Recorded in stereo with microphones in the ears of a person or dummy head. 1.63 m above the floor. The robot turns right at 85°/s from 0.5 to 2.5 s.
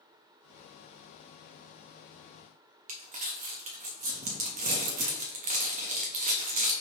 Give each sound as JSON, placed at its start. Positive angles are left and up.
{"t": 2.9, "sound": "crumpling", "side_deg": -30, "distance_m": 0.6}